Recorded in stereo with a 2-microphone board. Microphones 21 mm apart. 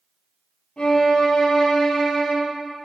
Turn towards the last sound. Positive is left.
turn(degrees=55)  # may be behind; listen again after turning